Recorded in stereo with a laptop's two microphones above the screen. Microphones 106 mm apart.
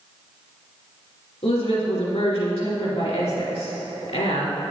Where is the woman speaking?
70° left (ahead or behind), 2 m.